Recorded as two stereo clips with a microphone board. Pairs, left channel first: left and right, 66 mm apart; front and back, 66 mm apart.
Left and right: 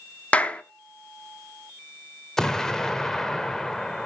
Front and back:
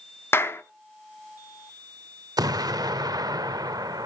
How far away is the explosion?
About 1.0 m.